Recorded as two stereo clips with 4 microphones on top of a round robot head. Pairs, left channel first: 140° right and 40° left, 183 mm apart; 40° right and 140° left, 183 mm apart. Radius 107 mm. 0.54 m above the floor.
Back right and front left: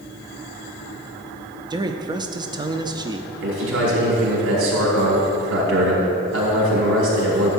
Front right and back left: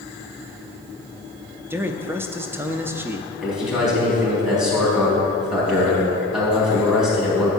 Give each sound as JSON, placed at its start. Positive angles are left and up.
{"t": 1.7, "sound": "a man speaking", "azimuth_deg": 75, "distance_m": 0.6}
{"t": 3.4, "sound": "a man speaking", "azimuth_deg": 50, "distance_m": 3.5}